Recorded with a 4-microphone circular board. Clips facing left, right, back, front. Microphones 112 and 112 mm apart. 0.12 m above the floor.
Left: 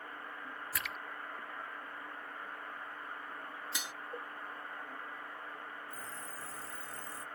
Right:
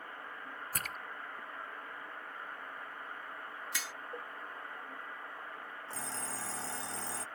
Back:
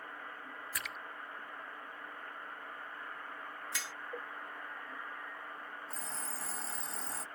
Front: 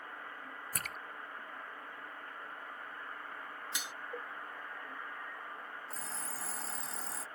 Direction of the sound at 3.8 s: 45° left.